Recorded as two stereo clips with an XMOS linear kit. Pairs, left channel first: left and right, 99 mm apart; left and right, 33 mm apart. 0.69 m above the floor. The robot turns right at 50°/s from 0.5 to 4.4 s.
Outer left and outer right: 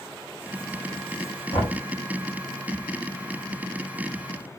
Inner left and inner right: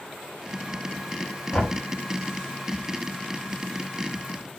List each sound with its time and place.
1.5 s knocking: 70° left (ahead or behind), 2 m; by 1.8 s 55° left (ahead or behind), 2 m